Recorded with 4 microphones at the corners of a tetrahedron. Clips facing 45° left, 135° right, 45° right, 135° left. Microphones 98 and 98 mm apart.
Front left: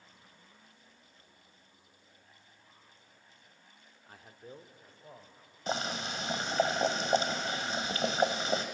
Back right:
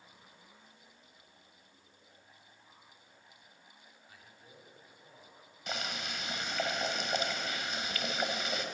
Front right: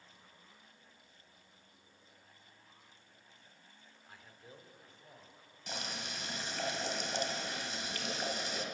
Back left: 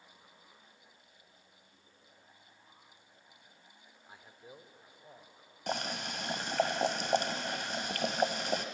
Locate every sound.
4.1 s a man speaking: 70° left, 1.5 m; by 5.6 s 65° left, 3.5 m
5.7 s boiling: 100° left, 1.6 m